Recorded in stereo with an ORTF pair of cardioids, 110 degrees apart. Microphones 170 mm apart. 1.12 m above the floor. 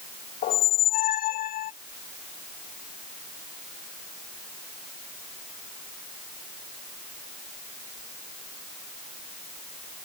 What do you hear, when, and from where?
0.4 s a squeak: 60° left